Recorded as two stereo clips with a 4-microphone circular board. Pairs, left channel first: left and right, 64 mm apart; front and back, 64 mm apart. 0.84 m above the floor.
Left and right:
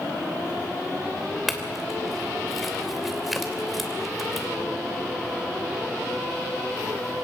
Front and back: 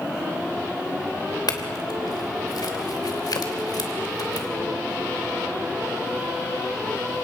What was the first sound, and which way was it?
A clink, straight ahead.